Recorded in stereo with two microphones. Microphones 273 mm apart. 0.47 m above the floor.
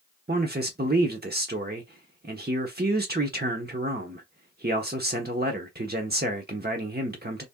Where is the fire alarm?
No fire alarm in this recording.